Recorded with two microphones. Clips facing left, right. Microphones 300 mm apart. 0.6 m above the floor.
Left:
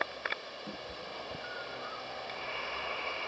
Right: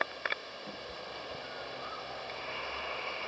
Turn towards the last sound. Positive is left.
turn(degrees=20)  # may be behind; listen again after turning